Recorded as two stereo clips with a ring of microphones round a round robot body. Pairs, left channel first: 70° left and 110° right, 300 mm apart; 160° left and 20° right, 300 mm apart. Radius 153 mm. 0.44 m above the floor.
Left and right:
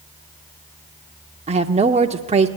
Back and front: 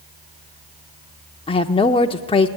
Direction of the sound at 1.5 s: 155° right.